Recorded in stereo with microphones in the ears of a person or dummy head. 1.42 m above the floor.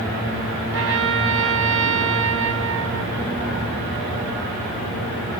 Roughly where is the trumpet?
Right.